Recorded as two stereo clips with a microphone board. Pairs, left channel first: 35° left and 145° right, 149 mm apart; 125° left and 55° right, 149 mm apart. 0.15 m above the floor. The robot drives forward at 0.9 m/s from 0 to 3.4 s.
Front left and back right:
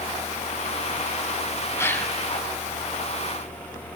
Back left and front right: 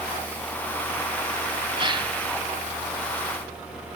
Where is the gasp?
25° right, 1.3 m; by 2.1 s 45° right, 1.2 m.